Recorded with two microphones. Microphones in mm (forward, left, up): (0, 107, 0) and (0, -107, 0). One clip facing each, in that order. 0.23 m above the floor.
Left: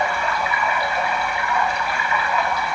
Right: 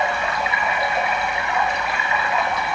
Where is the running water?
20° right (ahead or behind), 1.8 m.